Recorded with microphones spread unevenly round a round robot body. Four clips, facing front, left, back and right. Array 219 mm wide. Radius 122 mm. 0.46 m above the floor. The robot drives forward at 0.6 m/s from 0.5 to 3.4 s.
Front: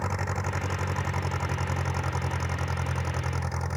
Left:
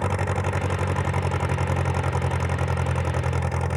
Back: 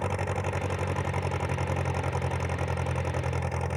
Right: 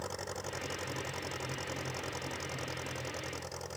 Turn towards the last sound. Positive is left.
turn(degrees=75)